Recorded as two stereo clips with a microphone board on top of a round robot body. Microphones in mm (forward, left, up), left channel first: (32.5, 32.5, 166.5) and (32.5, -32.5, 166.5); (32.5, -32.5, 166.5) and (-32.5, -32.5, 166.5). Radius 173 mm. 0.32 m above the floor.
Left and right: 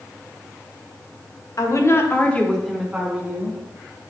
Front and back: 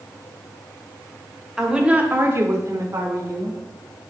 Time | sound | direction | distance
1.6 | a woman speaking | 100° left | 2.0 m